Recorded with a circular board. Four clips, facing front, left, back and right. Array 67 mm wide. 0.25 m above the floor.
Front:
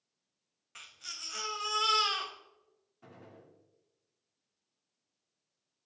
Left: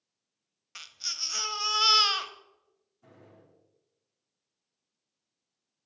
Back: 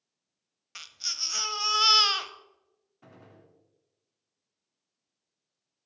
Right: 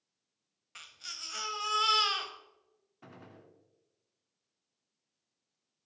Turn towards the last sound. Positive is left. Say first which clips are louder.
# right 3 dB, even
turn(degrees=-105)